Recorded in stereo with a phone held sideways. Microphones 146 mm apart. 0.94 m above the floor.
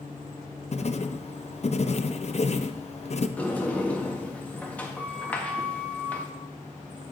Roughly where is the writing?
Left.